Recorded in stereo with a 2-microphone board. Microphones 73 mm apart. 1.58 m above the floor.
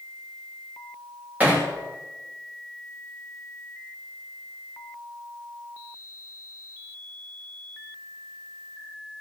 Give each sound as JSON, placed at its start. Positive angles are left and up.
{"t": 1.4, "sound": "hammering", "side_deg": -20, "distance_m": 3.0}